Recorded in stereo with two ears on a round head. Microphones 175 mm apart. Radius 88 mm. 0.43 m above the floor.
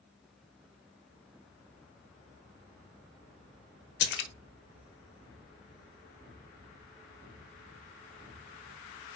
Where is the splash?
60° left (ahead or behind), 0.9 m.